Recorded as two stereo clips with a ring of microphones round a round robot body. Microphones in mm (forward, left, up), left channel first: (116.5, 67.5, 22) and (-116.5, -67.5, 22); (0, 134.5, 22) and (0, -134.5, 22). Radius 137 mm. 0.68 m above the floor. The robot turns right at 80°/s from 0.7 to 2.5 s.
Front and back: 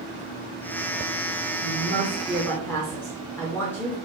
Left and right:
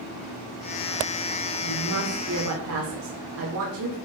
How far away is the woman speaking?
About 2.5 m.